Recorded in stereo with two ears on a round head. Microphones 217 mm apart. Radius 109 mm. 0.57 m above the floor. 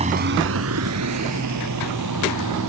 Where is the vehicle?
30° right (ahead or behind); by 2.7 s 90° right.